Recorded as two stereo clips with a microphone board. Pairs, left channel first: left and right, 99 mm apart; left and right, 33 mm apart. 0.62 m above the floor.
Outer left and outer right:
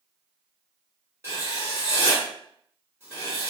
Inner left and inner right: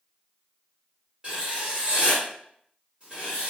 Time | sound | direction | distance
1.2 | writing | 30° right (ahead or behind) | 1.8 m